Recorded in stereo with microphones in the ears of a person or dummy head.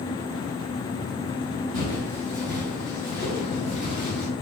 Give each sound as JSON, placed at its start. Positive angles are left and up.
{"t": 1.7, "sound": "footsteps", "side_deg": -25, "distance_m": 1.9}